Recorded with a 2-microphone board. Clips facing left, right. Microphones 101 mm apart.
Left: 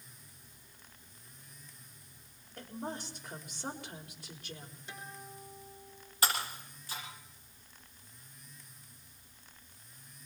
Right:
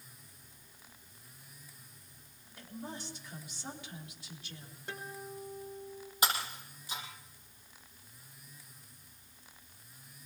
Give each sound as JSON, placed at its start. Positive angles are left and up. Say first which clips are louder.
{"t": 2.6, "sound": "a woman speaking", "louder": "left 3 dB", "side_deg": 50, "distance_m": 4.0}
{"t": 4.9, "sound": "a guitar", "louder": "right 5 dB", "side_deg": -55, "distance_m": 4.5}
{"t": 6.2, "sound": "breaking glass", "louder": "even", "side_deg": -20, "distance_m": 8.5}